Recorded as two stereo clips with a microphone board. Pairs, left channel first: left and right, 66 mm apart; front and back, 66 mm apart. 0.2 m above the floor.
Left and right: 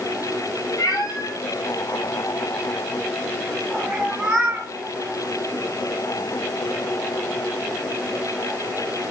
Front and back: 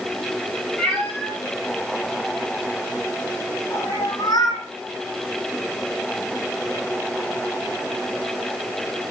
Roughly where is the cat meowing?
Left.